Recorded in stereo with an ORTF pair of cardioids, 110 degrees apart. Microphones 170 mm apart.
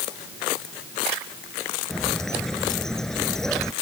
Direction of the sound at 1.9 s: 5° left.